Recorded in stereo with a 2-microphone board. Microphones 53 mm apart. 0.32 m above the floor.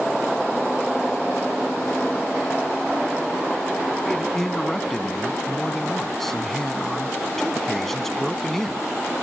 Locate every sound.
4.0 s a man speaking: 5° left (ahead or behind)